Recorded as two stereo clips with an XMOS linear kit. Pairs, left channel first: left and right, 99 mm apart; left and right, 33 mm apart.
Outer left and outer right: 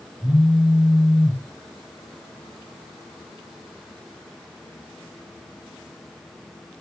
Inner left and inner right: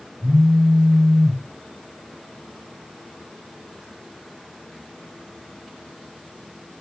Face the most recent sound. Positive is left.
turn(degrees=-10)  # may be behind; listen again after turning